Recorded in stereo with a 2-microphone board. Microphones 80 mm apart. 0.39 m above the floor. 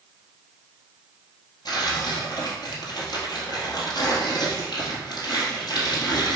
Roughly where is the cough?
No cough in this recording.